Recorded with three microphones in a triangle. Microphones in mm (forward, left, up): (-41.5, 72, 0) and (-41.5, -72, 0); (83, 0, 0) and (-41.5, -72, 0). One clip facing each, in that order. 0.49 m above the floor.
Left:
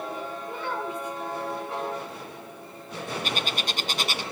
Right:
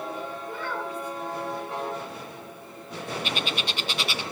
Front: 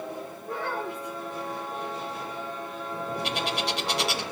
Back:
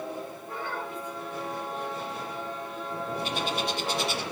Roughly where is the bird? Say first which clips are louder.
Even, even; ahead left.